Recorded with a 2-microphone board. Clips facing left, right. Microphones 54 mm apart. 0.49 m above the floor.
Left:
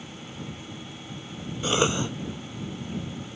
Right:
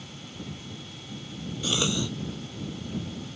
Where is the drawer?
I don't hear a drawer.